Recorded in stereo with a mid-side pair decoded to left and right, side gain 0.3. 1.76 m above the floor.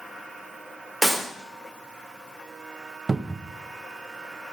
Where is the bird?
I don't hear a bird.